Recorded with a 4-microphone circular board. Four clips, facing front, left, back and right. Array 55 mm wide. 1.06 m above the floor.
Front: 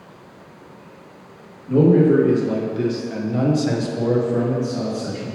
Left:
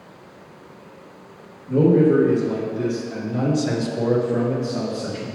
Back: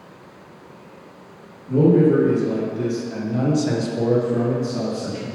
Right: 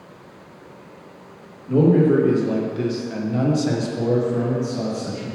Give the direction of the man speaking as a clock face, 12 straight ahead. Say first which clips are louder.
Even, front 1 dB; 2 o'clock.